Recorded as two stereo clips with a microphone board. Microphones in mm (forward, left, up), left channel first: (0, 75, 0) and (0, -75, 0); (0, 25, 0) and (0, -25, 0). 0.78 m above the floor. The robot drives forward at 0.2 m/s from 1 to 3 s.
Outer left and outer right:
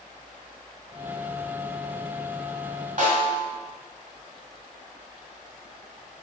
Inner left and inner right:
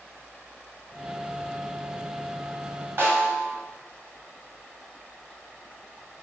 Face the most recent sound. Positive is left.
turn(degrees=-60)  # may be behind; listen again after turning